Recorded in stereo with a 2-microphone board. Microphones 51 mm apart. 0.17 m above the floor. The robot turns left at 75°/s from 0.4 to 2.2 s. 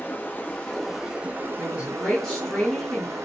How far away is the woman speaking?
About 2 m.